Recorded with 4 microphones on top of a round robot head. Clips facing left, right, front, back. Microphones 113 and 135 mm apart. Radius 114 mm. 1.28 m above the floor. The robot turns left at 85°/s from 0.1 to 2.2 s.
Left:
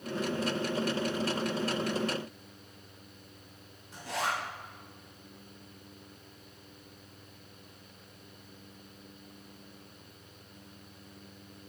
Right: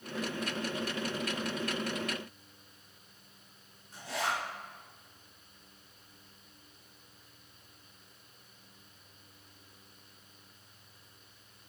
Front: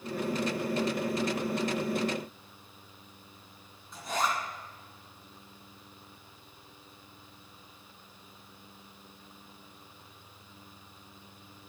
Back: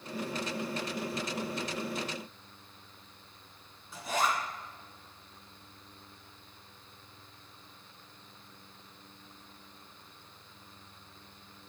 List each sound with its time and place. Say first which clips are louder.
3.9 s a zipper: left 1 dB, even; 95° left, 2 m